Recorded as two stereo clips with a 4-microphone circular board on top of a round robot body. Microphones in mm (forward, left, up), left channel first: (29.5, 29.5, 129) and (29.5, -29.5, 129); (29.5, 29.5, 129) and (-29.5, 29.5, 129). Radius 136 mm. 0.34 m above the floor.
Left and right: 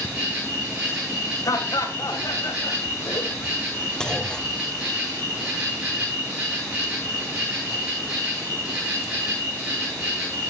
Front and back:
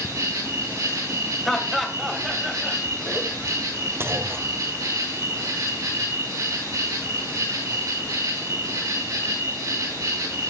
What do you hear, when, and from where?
0.0 s an insect: 160° right, 9.5 m
1.4 s laughter: 90° left, 2.5 m
4.0 s a clunk: 160° left, 1.4 m